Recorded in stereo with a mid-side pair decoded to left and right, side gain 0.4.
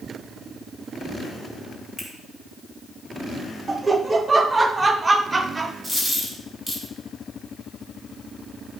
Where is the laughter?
30° right, 0.9 m.